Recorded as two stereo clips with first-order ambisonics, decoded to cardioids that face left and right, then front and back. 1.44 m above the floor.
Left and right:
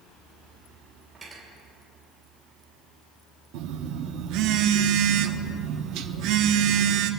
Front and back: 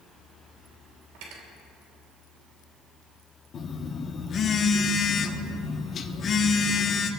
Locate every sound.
1.1 s cutlery clinking: 170° right, 3 m
3.5 s a phone buzzing: 65° right, 0.9 m